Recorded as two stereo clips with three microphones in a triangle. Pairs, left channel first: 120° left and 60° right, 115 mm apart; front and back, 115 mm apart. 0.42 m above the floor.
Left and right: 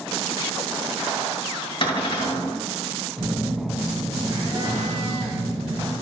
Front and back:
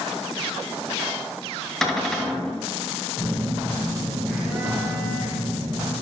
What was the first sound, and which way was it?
A cupboard door, 90° left.